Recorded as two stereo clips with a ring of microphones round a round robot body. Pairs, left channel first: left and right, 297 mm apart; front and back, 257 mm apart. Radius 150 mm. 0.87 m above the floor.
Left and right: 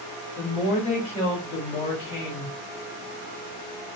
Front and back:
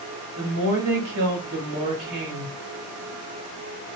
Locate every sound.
0.4 s a woman speaking: 175° left, 1.9 m